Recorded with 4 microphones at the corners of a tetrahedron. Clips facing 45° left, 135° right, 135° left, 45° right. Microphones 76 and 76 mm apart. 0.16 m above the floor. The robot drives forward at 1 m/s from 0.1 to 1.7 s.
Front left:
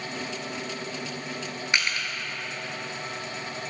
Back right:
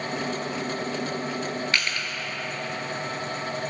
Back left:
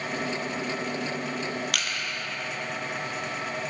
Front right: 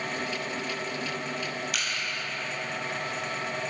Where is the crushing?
115° left, 0.8 m.